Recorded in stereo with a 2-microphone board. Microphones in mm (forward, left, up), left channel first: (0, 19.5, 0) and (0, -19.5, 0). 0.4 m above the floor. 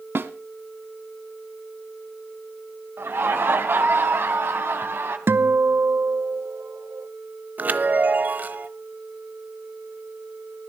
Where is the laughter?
65° right (ahead or behind), 3 m.